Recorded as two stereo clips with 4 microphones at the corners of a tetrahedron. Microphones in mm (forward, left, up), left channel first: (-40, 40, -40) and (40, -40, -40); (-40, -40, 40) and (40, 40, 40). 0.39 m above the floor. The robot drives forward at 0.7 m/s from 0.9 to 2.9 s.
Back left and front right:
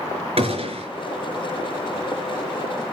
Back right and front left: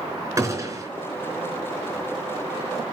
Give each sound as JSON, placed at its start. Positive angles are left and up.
{"t": 0.4, "sound": "a gunshot", "azimuth_deg": -20, "distance_m": 3.5}